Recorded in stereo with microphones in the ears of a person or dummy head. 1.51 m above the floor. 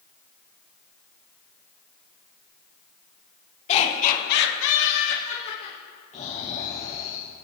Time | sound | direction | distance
3.7 | laughter | 35° left (ahead or behind) | 1.8 m
6.1 | snoring | 40° left (ahead or behind) | 4 m